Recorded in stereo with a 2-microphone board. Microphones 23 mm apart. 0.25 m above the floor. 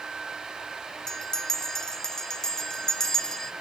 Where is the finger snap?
No finger snap in this recording.